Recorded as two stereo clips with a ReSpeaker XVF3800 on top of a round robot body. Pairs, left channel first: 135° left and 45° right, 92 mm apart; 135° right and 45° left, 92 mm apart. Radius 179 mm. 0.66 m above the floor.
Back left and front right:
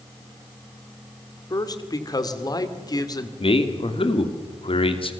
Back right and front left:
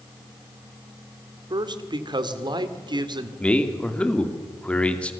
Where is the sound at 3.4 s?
150° left, 2.5 m.